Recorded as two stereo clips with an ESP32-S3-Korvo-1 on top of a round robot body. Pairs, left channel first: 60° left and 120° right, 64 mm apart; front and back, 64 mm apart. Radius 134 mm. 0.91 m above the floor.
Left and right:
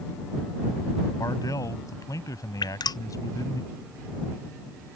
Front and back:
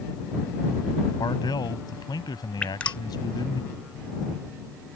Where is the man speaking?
20° left.